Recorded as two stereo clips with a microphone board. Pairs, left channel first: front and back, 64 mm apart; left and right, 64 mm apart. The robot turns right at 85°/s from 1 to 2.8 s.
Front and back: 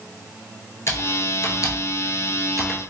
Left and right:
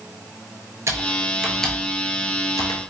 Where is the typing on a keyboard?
45° right, 0.6 m; by 2.8 s 105° left, 0.6 m.